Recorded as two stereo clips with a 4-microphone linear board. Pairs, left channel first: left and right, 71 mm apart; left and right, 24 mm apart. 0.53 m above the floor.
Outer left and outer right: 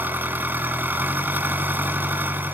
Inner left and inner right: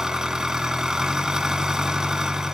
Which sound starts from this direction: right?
An engine running, at 0.0 s.